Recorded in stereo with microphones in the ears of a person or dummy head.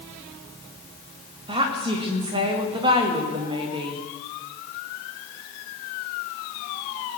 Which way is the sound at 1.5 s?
25° right (ahead or behind).